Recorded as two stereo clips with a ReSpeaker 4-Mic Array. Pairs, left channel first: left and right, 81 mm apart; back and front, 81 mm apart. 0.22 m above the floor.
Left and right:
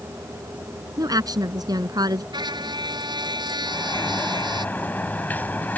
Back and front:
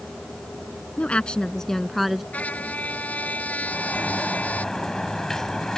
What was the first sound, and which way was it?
A woman speaking, 110° right.